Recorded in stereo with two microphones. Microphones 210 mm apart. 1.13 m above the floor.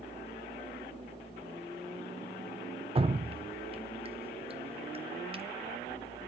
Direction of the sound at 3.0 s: 30° right (ahead or behind).